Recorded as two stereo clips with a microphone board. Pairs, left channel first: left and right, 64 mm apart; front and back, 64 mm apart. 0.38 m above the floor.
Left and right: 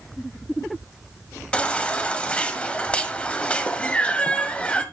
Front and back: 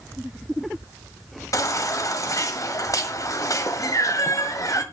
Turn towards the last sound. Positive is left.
turn(degrees=20)